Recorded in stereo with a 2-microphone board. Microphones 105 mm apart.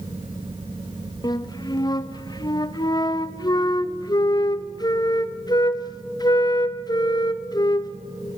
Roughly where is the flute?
Left.